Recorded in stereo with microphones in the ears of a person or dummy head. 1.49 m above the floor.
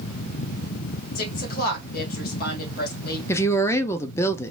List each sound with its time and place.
1.1 s a woman speaking: 55° left (ahead or behind), 2.0 m
3.3 s a woman speaking: 20° left (ahead or behind), 0.6 m